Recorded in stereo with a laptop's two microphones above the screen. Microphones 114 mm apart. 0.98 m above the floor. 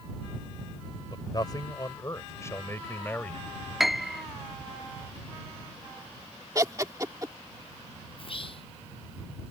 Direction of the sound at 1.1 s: 40° left (ahead or behind).